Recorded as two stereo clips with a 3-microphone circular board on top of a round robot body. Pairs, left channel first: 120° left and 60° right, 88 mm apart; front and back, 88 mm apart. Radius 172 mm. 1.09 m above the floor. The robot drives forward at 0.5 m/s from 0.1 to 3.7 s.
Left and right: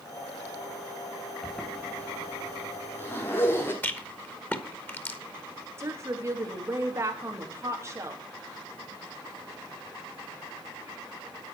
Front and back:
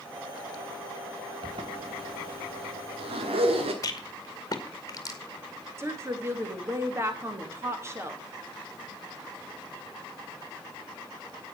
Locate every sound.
1.4 s a zipper: 150° right, 0.6 m; by 3.7 s 170° right, 1.5 m
3.8 s a rattle: 50° left, 1.4 m
5.8 s a woman speaking: 120° right, 2.5 m